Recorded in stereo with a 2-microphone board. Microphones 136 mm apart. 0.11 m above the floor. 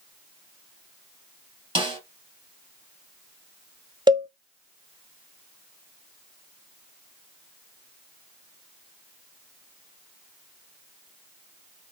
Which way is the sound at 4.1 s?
35° right (ahead or behind).